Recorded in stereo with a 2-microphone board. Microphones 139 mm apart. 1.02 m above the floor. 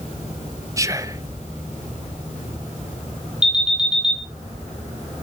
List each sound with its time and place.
0.8 s whispering: 20° right (ahead or behind), 1.0 m
3.4 s an alarm: 5° right (ahead or behind), 4 m